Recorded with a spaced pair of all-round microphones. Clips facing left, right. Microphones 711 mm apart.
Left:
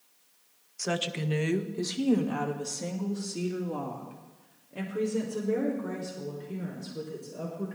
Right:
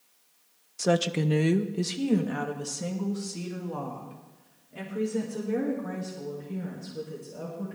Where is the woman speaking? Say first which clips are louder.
Right 7 dB; 65° right (ahead or behind), 0.8 m; by 7.8 s 20° right (ahead or behind), 4.5 m.